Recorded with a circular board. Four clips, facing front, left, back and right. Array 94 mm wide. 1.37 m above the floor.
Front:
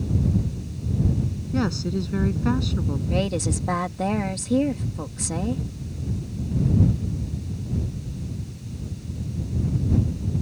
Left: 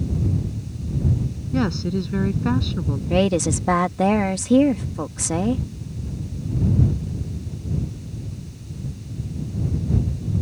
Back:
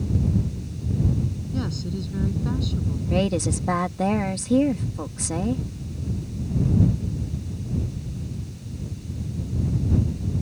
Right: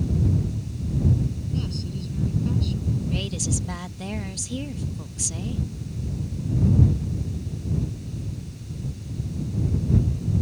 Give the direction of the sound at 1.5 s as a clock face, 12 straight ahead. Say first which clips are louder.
Left 9 dB, front 7 dB; 10 o'clock.